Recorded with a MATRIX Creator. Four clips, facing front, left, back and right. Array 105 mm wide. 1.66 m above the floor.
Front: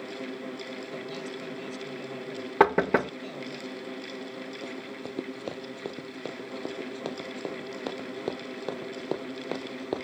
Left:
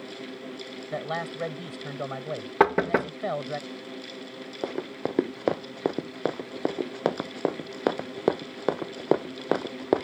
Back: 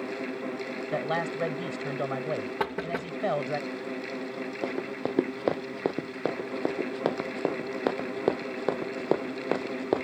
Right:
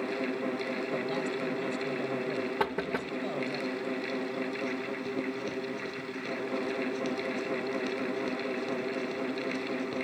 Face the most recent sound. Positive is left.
turn(degrees=110)